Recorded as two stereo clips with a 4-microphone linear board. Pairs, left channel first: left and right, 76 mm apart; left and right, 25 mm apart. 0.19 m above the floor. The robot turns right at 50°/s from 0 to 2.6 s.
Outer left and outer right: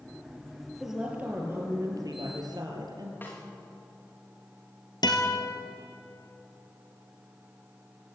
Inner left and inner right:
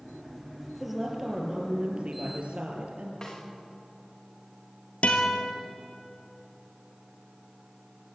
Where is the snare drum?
30° left (ahead or behind), 9.5 m.